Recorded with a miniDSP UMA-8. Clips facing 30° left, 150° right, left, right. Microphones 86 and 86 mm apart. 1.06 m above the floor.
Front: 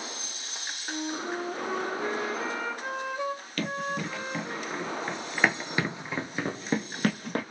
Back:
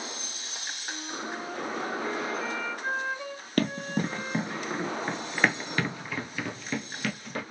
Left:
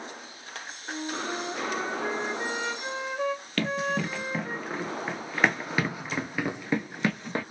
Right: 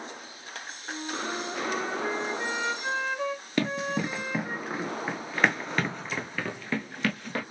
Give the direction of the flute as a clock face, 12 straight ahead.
11 o'clock.